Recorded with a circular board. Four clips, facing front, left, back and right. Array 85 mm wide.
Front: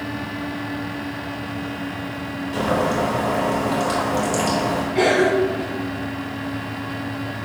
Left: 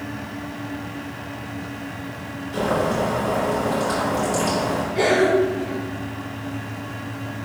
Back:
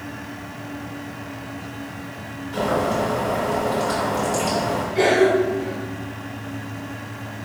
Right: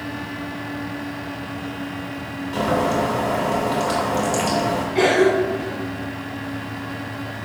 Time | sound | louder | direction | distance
2.5 | boiling | right 1 dB, even | 60° right | 3.5 m
5.0 | a cough | right 1 dB, back 1 dB | 60° right | 3.5 m